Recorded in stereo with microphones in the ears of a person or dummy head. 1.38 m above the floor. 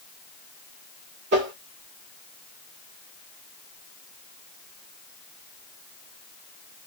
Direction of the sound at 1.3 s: 50° right (ahead or behind).